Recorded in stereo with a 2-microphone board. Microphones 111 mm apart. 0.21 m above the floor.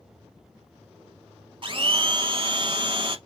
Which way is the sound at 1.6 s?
50° right (ahead or behind).